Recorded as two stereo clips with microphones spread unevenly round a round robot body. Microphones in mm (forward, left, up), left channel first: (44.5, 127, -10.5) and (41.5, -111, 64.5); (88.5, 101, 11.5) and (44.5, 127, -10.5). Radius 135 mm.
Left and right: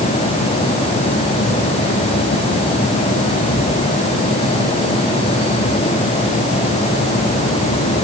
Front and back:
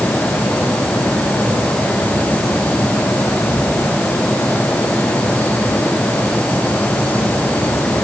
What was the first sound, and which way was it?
Only background noise.